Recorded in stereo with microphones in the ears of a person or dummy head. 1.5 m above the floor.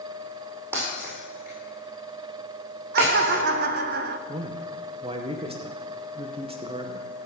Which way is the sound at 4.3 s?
30° right (ahead or behind).